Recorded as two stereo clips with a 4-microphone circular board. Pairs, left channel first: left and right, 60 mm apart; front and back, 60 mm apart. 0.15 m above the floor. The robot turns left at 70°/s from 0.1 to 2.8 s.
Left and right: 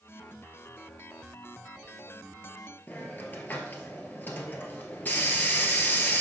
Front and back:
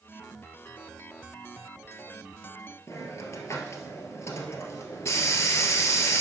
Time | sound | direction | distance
2.9 | a hiss | 35° left | 1.3 m